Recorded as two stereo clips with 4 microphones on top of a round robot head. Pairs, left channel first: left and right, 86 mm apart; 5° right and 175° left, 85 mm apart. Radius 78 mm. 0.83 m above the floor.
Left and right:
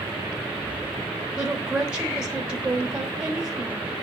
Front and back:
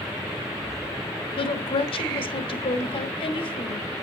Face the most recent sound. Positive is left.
turn(degrees=-10)